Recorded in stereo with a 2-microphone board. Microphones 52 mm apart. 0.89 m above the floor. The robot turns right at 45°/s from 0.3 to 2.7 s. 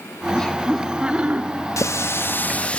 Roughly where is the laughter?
Behind.